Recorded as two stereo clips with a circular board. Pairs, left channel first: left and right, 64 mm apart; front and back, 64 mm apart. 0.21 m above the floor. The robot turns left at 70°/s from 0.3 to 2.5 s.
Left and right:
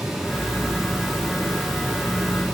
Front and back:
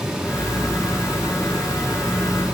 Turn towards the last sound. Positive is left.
No sound to turn to.